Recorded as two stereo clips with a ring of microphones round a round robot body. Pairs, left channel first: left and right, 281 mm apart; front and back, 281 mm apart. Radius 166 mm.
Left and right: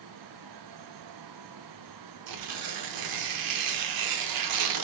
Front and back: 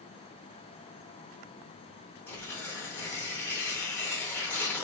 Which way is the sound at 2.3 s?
85° right.